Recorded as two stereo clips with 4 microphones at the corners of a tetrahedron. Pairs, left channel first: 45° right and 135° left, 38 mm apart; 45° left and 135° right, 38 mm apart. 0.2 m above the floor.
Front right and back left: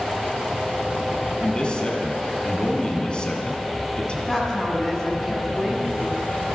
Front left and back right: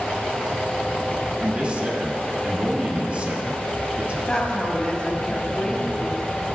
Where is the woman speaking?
15° left, 1.7 m.